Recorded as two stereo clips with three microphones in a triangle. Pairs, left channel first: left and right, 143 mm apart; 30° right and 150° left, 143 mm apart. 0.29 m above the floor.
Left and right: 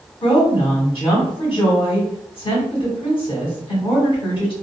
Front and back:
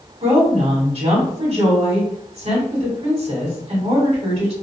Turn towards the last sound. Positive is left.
turn(degrees=130)